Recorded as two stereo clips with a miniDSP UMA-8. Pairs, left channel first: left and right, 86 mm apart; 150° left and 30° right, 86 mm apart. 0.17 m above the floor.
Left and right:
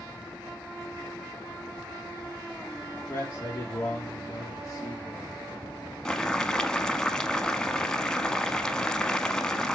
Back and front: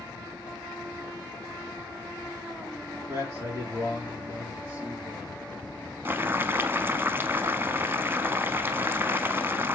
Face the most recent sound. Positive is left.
turn(degrees=15)